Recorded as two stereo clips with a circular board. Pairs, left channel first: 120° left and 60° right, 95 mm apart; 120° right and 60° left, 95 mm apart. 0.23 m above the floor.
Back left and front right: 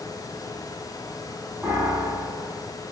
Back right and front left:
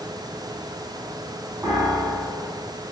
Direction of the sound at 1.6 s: Straight ahead.